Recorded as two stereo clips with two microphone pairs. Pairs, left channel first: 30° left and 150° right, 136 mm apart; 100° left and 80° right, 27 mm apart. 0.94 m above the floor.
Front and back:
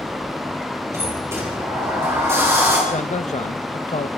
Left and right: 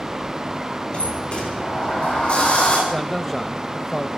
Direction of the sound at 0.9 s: 140° left.